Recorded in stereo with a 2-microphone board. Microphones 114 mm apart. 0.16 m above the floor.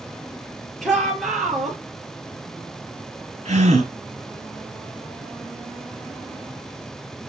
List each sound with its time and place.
0.8 s a shout: centre (ahead or behind), 4.5 m
3.5 s a gasp: 65° right (ahead or behind), 2.5 m